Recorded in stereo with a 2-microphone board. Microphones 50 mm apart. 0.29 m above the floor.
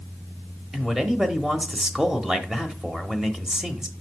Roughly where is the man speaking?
Centre.